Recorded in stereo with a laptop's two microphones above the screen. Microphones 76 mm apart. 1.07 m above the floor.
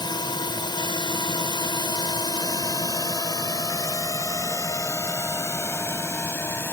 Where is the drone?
70° left (ahead or behind); by 6.7 s 30° left (ahead or behind).